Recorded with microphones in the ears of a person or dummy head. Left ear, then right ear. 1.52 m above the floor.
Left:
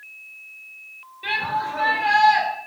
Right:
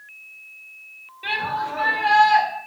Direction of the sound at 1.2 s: 10° right (ahead or behind).